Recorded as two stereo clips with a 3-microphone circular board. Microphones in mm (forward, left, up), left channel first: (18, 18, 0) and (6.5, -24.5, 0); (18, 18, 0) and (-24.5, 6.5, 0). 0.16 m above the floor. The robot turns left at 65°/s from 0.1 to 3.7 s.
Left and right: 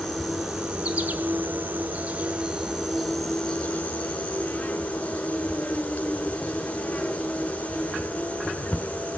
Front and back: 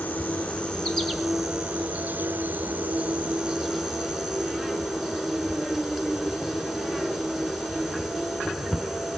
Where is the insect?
5° right, 1.1 m; by 9.2 s 120° left, 1.1 m.